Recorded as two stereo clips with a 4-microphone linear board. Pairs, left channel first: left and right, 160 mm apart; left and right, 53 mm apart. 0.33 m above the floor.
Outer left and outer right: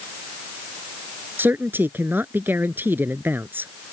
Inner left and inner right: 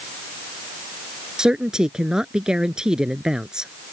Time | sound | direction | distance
1.4 | a man speaking | 15° right (ahead or behind) | ?